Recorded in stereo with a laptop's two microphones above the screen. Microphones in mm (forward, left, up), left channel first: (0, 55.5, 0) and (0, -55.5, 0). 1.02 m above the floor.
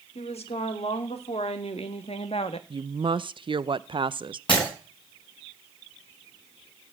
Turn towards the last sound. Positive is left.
turn(degrees=55)  # may be behind; listen again after turning